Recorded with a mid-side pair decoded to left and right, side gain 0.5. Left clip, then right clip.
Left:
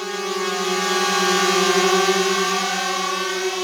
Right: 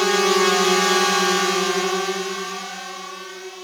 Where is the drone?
55° right; by 3.6 s 65° left.